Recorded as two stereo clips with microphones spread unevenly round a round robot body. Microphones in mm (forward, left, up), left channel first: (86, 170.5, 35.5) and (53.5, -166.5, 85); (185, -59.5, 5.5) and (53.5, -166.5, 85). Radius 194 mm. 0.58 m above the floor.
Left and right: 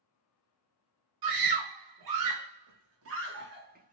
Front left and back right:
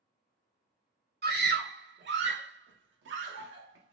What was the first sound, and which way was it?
A scream, 105° right.